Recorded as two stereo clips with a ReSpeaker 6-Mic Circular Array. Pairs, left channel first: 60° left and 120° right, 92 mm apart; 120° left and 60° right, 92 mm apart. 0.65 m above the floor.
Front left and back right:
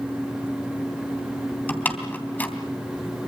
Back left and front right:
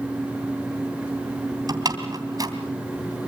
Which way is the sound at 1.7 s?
10° right.